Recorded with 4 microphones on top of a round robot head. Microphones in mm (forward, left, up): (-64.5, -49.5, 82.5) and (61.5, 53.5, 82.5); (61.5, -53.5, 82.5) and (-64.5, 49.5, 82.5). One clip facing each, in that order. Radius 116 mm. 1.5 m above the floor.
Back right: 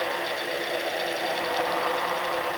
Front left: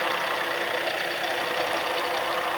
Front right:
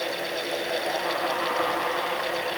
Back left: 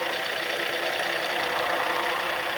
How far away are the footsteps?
I don't hear footsteps.